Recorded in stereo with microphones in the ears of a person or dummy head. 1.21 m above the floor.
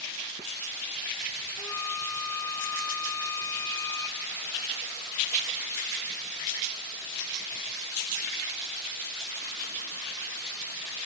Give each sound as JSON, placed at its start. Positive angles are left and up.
{"t": 1.6, "sound": "a flute", "side_deg": 15, "distance_m": 1.0}